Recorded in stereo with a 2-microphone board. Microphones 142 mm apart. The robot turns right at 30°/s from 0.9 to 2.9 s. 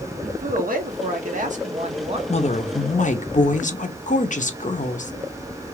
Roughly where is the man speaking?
Right.